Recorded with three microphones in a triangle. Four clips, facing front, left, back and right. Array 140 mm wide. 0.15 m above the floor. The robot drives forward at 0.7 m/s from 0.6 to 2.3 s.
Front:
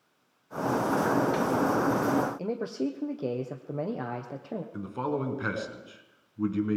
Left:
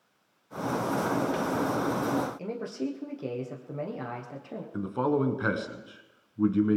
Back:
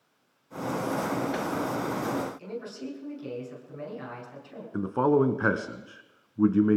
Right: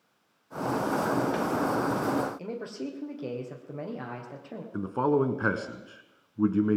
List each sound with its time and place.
2.4 s a man speaking: straight ahead, 2.5 m
4.7 s a man speaking: 160° right, 1.2 m